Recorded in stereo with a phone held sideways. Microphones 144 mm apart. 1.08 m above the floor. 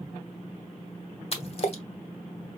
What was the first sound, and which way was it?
A splash, 45° left (ahead or behind).